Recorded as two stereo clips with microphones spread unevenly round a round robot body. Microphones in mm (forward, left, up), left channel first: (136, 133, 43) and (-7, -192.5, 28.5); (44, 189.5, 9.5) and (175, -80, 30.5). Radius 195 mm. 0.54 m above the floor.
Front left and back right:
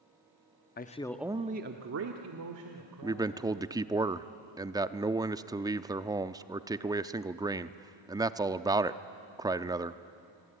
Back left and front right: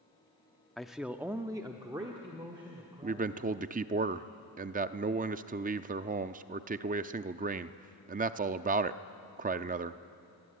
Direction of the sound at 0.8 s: 35° left.